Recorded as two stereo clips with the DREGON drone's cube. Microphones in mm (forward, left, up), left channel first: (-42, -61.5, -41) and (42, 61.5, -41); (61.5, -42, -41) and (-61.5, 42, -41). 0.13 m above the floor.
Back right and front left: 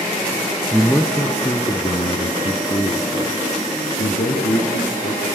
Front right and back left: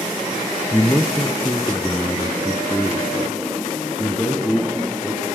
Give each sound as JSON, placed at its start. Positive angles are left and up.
{"t": 0.7, "sound": "a man speaking", "azimuth_deg": -20, "distance_m": 1.4}